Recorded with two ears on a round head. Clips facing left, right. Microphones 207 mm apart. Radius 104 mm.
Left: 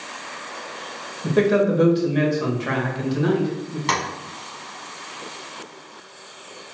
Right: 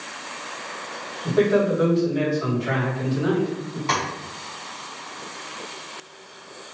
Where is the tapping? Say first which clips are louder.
Even; 70° left (ahead or behind), 2.0 m.